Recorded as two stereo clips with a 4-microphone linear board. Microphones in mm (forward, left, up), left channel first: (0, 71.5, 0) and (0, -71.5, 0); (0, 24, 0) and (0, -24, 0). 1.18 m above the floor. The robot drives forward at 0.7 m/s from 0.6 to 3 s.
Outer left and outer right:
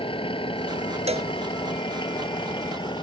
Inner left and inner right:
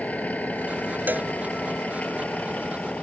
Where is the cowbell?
50° right (ahead or behind).